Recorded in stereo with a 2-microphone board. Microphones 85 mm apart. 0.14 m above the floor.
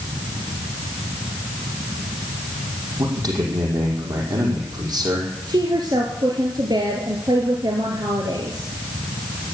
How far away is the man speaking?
About 6 m.